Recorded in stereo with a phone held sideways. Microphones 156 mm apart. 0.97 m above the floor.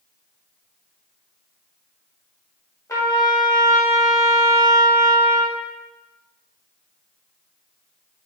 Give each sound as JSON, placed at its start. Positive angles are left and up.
{"t": 2.9, "sound": "a trumpet", "side_deg": 20, "distance_m": 1.3}